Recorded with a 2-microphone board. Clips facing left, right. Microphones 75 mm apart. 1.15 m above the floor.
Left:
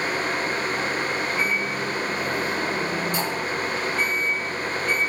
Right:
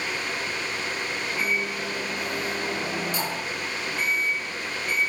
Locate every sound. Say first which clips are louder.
1.4 s a microwave: left 3 dB; 45° left (ahead or behind), 3 m